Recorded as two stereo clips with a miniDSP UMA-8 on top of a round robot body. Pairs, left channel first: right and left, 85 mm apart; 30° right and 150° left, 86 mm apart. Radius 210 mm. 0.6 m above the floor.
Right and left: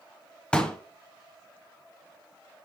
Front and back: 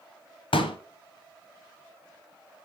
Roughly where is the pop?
Ahead.